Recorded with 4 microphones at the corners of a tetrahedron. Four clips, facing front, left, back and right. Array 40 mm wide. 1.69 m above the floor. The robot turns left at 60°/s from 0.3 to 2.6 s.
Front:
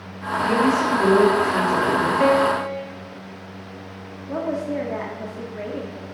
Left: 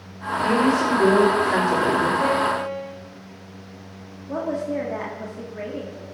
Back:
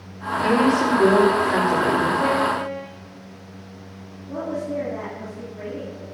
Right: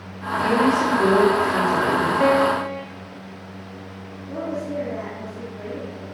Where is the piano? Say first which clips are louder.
Right 3 dB, front 3 dB; 35° right, 2 m; by 2.9 s 60° right, 2 m.